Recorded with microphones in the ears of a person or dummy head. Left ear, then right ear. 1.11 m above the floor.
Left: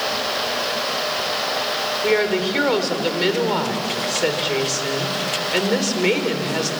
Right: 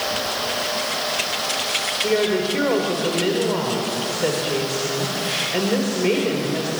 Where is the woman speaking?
50° left (ahead or behind), 3.5 m.